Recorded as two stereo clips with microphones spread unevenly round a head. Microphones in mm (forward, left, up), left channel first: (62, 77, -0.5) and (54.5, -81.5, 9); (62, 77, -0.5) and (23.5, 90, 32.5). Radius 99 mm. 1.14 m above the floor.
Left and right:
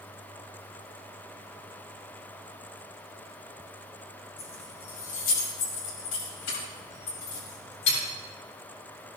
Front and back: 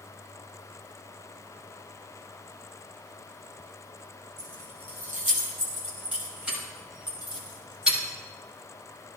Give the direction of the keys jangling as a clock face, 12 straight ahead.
8 o'clock.